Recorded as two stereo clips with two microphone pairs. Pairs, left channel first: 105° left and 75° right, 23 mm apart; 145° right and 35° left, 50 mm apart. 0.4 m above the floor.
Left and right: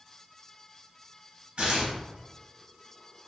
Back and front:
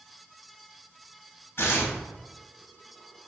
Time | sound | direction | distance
1.6 | tearing paper | 115° right | 0.8 m